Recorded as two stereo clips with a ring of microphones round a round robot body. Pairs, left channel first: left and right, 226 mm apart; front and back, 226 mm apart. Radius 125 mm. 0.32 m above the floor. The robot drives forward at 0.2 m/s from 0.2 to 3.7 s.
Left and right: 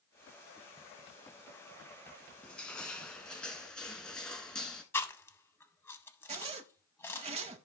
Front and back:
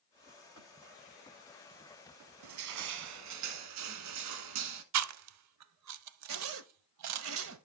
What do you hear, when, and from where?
2.4 s crushing: 175° left, 0.6 m
4.9 s chewing: 170° left, 0.5 m
6.3 s a zipper: 155° right, 0.6 m